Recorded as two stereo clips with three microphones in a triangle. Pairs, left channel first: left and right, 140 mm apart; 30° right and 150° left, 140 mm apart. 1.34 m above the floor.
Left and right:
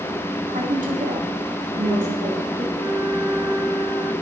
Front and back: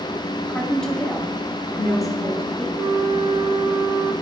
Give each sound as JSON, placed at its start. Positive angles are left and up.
{"t": 0.5, "sound": "a woman speaking", "azimuth_deg": -115, "distance_m": 3.0}
{"t": 2.8, "sound": "a flute", "azimuth_deg": -155, "distance_m": 0.9}